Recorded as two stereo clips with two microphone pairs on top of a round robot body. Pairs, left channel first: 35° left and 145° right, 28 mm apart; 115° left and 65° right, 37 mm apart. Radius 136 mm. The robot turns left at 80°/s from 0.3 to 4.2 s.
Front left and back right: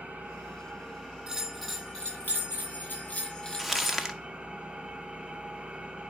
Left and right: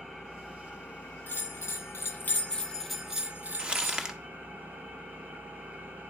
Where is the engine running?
150° right, 6 m; by 6.1 s 105° right, 6 m.